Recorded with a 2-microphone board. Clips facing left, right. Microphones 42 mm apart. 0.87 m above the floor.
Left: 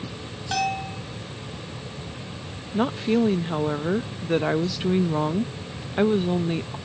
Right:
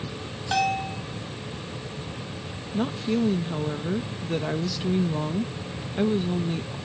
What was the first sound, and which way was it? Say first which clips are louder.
A bell: right 1 dB; 5° right (ahead or behind).